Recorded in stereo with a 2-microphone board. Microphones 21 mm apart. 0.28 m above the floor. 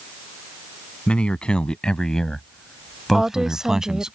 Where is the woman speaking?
30° right (ahead or behind).